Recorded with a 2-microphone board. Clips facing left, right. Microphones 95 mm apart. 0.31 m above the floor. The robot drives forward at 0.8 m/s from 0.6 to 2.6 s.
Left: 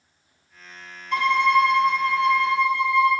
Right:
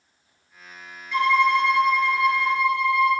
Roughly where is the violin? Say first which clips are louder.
Even; left.